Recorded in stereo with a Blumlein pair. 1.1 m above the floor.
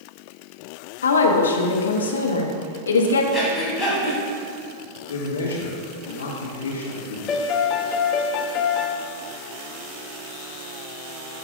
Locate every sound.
1.0 s a woman speaking: 70° left, 1.1 m
3.3 s breathing: 10° left, 2.5 m
5.1 s a man speaking: 70° left, 2 m
7.3 s a piano: 30° left, 0.5 m